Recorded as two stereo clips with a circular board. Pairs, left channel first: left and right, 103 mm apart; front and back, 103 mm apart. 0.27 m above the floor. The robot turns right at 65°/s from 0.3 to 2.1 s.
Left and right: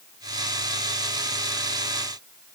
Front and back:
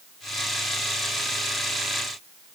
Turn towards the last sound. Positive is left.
No sound to turn to.